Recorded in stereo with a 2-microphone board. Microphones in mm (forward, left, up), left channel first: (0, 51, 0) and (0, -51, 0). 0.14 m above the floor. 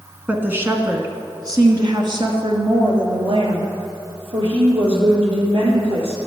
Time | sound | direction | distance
0.3 | a woman speaking | 15° right (ahead or behind) | 1.1 m